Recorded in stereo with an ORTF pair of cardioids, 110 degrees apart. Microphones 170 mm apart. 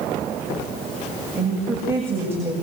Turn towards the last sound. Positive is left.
turn(degrees=-15)